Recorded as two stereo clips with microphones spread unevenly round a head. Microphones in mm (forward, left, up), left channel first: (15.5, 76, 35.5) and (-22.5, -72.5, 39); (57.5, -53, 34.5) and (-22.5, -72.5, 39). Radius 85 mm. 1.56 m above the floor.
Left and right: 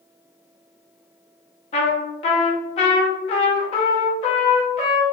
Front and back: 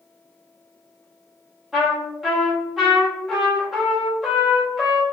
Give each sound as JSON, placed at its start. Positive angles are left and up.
{"t": 1.7, "sound": "a trumpet", "azimuth_deg": 110, "distance_m": 0.7}